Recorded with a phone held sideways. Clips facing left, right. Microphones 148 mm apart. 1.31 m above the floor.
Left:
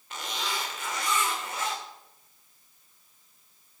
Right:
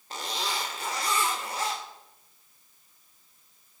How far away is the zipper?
About 2 m.